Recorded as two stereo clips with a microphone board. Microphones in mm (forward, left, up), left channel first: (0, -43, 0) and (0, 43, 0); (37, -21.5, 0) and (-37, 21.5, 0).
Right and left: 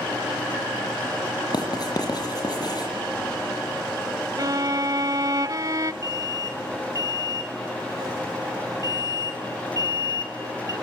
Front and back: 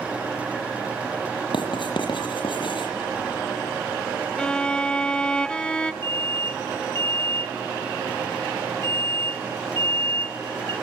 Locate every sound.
1.5 s writing: 55° right, 7 m
4.4 s a violin: 50° left, 0.8 m
6.0 s an alarm: 135° left, 6.5 m